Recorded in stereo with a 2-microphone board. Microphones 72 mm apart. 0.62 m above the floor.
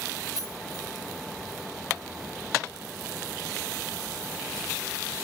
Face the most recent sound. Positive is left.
turn(degrees=55)  # may be behind; listen again after turning